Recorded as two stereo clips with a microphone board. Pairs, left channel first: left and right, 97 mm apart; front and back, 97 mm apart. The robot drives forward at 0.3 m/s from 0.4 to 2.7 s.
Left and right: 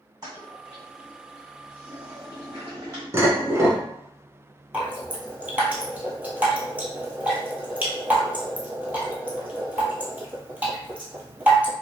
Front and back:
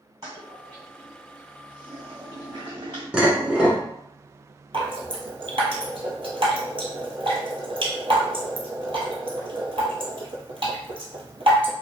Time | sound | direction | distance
0.2 | a toilet flushing | 135° right | 1.4 m
3.1 | dishes clattering | 110° right | 0.9 m
4.7 | dripping | 160° right | 0.9 m